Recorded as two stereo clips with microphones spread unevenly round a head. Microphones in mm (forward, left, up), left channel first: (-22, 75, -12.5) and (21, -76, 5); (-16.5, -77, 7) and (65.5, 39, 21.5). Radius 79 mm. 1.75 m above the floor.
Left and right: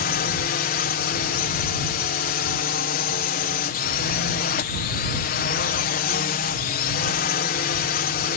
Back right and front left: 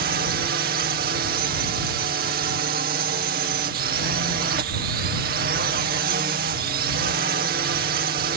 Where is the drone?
80° left.